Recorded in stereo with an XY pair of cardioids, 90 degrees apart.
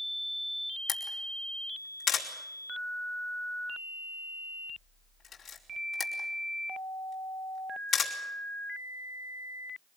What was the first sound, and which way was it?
A camera shutter, 55° left.